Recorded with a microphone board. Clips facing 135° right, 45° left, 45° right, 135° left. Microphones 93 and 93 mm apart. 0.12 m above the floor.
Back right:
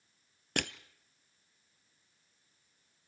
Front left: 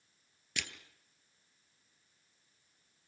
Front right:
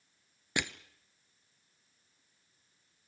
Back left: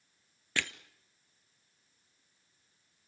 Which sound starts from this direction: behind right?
Crushing, at 0.6 s.